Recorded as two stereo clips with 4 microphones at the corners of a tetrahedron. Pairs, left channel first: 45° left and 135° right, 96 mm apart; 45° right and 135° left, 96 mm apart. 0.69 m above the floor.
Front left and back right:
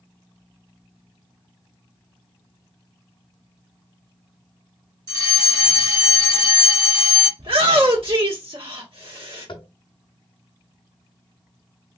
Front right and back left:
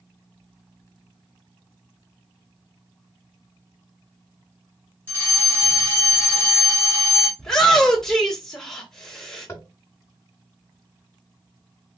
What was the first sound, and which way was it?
A fire alarm, 115° right.